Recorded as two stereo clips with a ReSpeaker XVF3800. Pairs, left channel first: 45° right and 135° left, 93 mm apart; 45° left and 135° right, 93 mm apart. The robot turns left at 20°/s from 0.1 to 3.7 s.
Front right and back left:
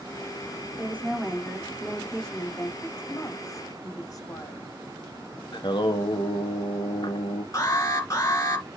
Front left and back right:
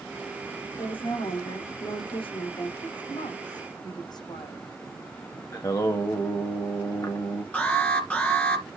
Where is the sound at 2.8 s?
25° left, 6.5 m; by 4.7 s 10° left, 6.5 m.